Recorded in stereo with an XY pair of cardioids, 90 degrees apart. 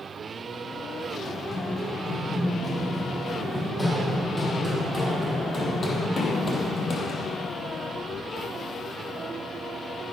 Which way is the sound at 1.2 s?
Straight ahead.